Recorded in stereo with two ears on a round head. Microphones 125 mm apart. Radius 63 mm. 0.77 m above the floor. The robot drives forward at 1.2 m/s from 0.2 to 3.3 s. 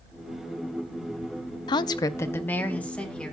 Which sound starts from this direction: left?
A woman speaking, at 1.7 s.